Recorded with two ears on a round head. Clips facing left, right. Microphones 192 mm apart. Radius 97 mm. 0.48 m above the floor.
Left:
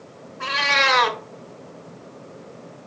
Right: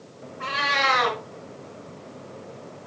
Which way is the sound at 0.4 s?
55° left (ahead or behind).